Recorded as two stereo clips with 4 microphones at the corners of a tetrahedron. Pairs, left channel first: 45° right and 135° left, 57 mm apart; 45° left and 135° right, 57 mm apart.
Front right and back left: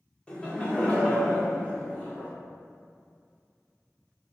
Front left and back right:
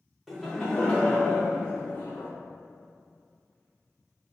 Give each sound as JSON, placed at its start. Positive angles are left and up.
{"t": 0.3, "sound": "laughter", "azimuth_deg": -55, "distance_m": 0.9}